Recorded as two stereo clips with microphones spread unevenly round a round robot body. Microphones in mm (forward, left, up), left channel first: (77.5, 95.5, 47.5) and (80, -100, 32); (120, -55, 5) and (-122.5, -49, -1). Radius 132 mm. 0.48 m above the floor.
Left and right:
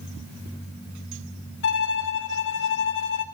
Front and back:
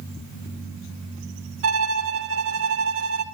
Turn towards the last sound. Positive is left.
turn(degrees=135)